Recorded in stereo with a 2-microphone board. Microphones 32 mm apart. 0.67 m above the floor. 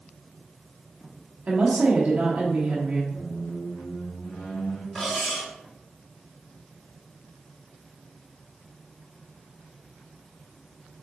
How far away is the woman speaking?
About 0.8 m.